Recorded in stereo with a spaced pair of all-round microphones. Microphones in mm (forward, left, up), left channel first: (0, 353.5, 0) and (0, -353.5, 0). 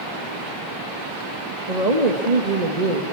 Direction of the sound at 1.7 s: 60° right (ahead or behind).